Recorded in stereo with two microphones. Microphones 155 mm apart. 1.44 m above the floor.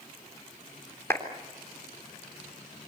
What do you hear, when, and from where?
1.1 s a clap: 15° left (ahead or behind), 3.5 m